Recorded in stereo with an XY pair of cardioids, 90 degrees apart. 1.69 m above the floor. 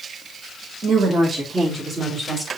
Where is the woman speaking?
55° right, 2.5 m; by 2.5 s 20° right, 3 m.